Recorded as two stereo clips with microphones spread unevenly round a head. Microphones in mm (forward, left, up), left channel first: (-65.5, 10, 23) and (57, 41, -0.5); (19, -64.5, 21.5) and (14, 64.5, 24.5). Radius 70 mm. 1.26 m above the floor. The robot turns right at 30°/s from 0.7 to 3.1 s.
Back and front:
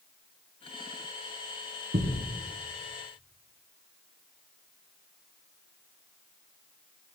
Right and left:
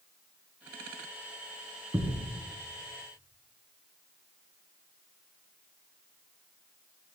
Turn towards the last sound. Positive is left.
turn(degrees=50)